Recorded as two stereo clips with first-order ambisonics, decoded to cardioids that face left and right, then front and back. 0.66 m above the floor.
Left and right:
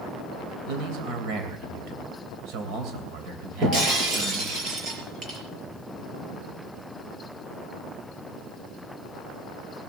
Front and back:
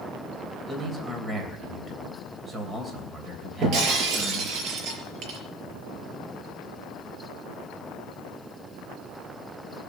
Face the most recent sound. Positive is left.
turn(degrees=-145)